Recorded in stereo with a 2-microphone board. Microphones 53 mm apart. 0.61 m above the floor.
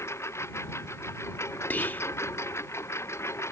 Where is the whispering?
35° left (ahead or behind).